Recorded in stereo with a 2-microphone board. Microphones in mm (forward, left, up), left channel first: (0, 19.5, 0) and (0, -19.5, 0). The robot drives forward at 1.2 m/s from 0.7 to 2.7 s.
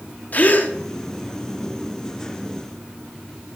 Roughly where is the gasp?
Left.